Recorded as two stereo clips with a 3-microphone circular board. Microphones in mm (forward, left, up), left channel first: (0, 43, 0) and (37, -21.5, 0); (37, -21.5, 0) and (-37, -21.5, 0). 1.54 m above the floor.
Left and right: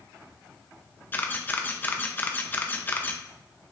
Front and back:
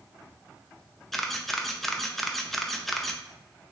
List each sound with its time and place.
1.1 s a camera shutter: 85° left, 0.5 m